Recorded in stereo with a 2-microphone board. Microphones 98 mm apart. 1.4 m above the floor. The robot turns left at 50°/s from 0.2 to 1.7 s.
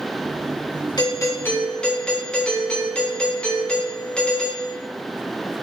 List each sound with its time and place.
1.0 s a doorbell: 45° left, 4 m; by 4.8 s 10° left, 4 m